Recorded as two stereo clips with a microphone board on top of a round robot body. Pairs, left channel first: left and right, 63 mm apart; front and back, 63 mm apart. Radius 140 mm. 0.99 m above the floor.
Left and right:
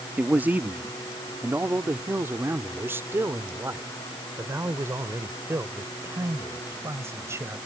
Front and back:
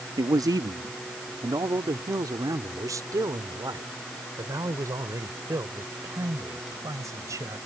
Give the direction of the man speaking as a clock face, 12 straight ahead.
5 o'clock.